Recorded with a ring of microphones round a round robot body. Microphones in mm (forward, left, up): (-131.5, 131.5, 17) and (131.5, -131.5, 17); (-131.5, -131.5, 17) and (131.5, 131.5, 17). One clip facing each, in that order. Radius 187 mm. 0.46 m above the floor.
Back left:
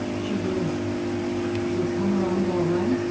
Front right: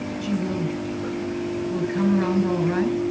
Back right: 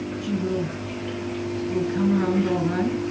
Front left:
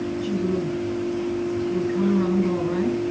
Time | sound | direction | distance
0.2 | a woman speaking | 60° right | 7 m